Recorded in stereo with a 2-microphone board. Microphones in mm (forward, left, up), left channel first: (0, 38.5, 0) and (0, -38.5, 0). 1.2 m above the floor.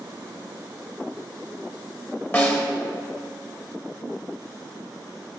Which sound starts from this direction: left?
A snare drum, at 2.3 s.